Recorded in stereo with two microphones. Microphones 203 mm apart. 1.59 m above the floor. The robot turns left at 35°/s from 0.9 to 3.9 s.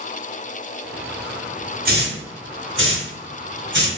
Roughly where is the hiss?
Right.